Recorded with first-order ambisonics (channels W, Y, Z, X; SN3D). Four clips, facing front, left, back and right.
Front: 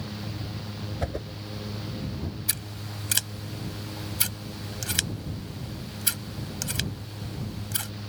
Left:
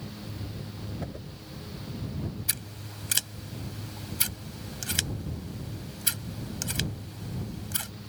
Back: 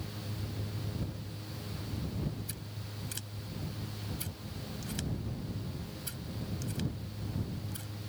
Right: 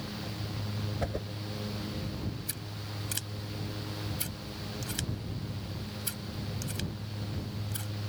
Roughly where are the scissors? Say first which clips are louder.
Left 3 dB, front 10 dB; ahead left.